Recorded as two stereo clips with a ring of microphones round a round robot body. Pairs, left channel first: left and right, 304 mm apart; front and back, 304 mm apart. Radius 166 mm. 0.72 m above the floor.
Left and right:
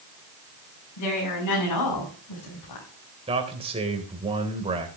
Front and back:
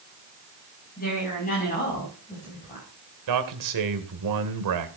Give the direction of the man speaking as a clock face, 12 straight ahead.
5 o'clock.